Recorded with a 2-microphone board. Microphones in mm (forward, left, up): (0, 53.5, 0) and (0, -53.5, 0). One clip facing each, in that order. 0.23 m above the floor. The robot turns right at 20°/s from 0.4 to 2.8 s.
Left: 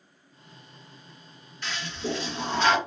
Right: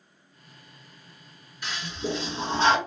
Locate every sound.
1.6 s a toilet flushing: 10° right (ahead or behind), 1.4 m; by 2.8 s 30° right (ahead or behind), 1.4 m